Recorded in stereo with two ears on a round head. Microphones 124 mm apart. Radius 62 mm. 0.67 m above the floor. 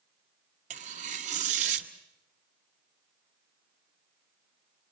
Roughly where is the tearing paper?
Right.